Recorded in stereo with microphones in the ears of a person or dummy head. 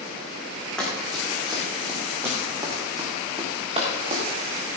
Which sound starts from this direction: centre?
Running footsteps, at 0.8 s.